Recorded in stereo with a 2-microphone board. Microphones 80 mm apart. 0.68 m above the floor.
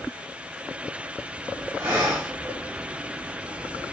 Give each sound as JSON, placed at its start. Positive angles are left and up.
{"t": 1.8, "sound": "breathing", "side_deg": -15, "distance_m": 2.0}